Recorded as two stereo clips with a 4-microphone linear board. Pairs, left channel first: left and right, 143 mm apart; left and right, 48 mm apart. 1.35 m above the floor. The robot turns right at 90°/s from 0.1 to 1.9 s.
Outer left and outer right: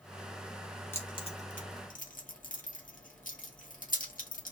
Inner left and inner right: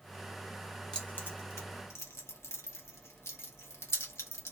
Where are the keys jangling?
15° left (ahead or behind), 1.4 m; by 4.5 s 70° left (ahead or behind), 1.4 m.